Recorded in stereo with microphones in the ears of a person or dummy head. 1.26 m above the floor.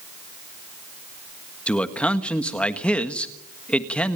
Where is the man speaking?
5° left (ahead or behind), 1.5 m.